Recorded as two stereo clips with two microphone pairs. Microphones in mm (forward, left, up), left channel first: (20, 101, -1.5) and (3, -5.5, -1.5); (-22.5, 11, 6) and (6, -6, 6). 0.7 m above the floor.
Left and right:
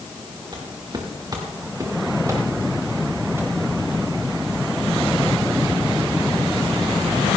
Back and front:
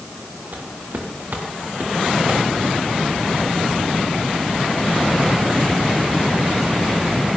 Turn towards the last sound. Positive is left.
turn(degrees=-30)